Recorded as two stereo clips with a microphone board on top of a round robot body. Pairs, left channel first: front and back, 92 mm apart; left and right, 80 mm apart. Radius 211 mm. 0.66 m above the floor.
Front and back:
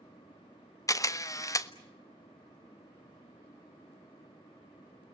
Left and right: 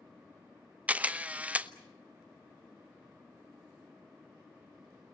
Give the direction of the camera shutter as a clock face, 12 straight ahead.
1 o'clock.